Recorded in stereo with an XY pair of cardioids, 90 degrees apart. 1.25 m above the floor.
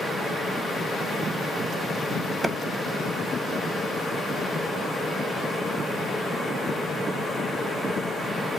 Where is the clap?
25° right, 0.7 m.